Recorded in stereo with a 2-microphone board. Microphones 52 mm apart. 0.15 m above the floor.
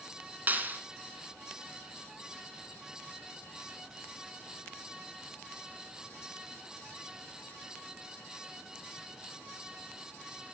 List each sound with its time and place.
0.5 s a clap: 40° right (ahead or behind), 1.0 m